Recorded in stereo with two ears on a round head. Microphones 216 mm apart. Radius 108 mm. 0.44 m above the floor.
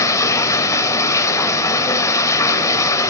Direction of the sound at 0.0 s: 15° left (ahead or behind).